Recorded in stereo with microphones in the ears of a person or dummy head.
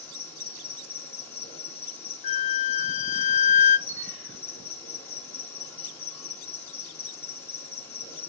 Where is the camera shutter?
15° right (ahead or behind), 1.2 m.